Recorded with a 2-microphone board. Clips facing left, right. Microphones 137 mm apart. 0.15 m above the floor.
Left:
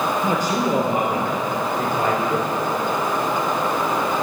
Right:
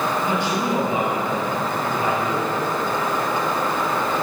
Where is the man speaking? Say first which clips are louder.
Left 1 dB; 40° left (ahead or behind), 3.5 m; by 2.5 s 65° left (ahead or behind), 3.5 m.